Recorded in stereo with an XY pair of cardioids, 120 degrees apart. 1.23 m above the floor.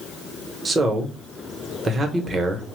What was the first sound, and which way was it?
A man speaking, 30° right.